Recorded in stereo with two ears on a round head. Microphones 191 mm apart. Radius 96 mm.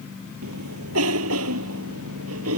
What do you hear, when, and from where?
0.4 s a cough: 80° right